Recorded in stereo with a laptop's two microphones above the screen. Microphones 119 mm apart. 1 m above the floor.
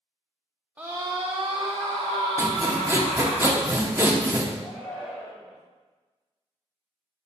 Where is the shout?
5° left (ahead or behind), 3.5 m.